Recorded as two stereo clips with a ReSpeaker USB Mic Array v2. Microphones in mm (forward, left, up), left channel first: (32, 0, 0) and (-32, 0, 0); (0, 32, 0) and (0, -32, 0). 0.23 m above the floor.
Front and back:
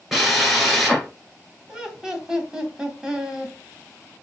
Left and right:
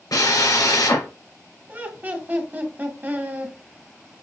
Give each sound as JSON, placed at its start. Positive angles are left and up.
{"t": 0.1, "sound": "a drill", "azimuth_deg": 90, "distance_m": 1.5}
{"t": 1.7, "sound": "laughter", "azimuth_deg": -110, "distance_m": 1.2}